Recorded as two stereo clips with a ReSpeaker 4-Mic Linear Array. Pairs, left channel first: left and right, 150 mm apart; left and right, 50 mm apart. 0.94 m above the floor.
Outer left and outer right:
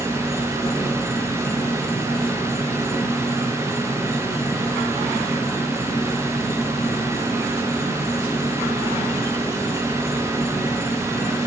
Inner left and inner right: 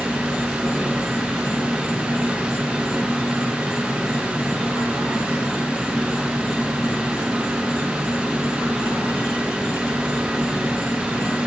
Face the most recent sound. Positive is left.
turn(degrees=20)  # may be behind; listen again after turning